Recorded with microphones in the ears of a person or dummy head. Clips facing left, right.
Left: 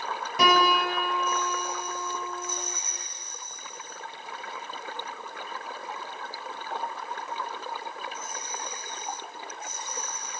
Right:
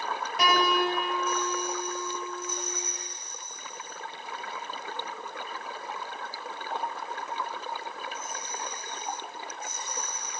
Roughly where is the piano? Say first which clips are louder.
Left 2 dB; left.